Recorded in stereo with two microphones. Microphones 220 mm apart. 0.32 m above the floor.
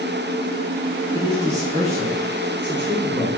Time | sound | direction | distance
1.1 | a man speaking | 25° right (ahead or behind) | 2 m